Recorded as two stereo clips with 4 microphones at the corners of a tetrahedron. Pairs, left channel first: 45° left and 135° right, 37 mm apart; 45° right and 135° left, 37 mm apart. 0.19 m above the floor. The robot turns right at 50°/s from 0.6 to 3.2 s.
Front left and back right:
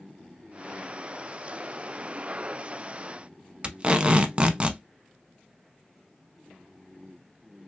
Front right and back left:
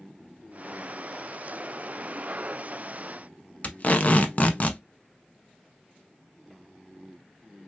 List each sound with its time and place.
3.6 s tape being pulled: 85° right, 0.6 m